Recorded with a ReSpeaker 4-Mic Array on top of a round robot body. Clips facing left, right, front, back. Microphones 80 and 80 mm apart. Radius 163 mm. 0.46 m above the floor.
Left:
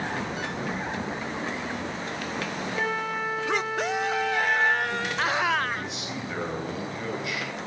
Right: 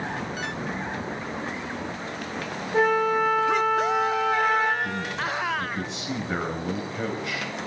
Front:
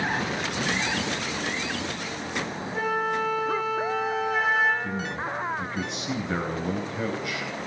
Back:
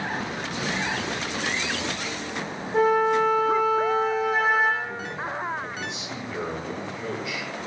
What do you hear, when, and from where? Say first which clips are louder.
2.7 s a flute: right 10 dB, back 7 dB; 135° right, 6 m
4.8 s a man speaking: left 2 dB, front 1 dB; 35° right, 10 m